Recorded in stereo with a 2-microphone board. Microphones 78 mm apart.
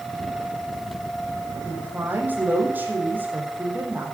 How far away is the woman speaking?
About 5 m.